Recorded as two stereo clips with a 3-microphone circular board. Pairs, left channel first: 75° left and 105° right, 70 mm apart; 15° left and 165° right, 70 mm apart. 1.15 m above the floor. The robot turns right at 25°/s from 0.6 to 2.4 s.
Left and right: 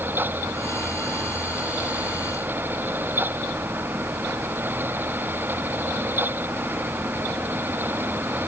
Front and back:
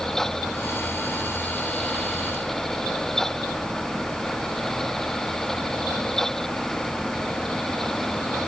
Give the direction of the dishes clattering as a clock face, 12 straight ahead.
No dishes clattering in this recording.